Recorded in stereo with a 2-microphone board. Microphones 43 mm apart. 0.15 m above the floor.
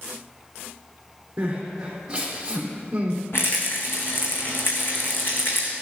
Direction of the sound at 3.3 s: 60° left (ahead or behind).